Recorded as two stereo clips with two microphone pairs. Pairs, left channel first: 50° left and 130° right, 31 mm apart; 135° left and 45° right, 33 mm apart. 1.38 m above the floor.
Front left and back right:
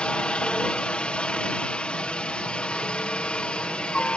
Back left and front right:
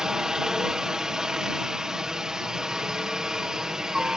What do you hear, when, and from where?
0.0 s a helicopter: 20° left